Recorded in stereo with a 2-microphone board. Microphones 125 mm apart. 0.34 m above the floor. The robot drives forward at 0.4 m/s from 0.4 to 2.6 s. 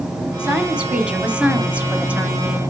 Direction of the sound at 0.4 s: 10° right (ahead or behind).